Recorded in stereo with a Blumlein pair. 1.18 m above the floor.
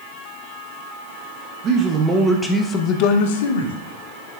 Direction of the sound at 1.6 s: 30° right.